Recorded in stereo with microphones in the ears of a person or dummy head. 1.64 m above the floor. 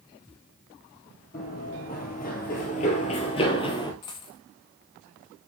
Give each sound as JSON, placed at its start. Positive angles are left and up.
{"t": 1.3, "sound": "running footsteps", "side_deg": 40, "distance_m": 3.0}
{"t": 4.0, "sound": "a dropped coin", "side_deg": 25, "distance_m": 1.0}